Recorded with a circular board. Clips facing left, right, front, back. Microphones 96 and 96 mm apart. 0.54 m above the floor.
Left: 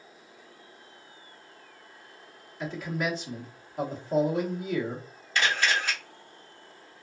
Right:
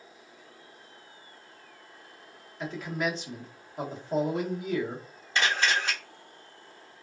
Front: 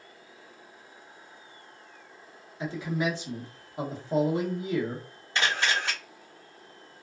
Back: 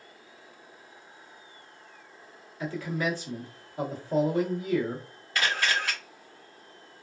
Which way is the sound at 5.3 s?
45° right.